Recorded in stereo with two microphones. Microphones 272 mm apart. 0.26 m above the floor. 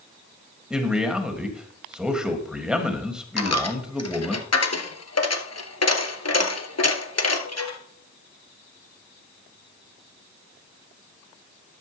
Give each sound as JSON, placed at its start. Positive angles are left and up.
{"t": 0.7, "sound": "a man speaking", "side_deg": -5, "distance_m": 1.6}
{"t": 3.4, "sound": "a dropped coin", "side_deg": 65, "distance_m": 1.2}